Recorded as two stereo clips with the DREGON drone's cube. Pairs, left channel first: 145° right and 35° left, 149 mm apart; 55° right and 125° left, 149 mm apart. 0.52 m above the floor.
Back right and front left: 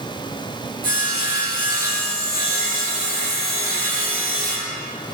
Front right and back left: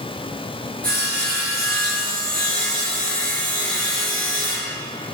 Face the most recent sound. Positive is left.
turn(degrees=-140)